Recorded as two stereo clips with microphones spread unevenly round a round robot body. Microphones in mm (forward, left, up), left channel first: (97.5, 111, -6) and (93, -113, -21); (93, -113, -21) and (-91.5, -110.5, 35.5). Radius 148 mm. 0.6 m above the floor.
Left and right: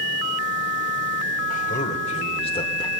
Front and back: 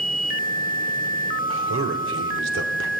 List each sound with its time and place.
1.5 s a man speaking: 150° left, 2.5 m; by 2.9 s 165° left, 2 m